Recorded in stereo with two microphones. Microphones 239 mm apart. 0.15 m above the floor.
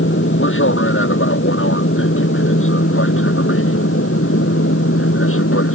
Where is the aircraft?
55° left (ahead or behind); by 5.8 s 65° left (ahead or behind).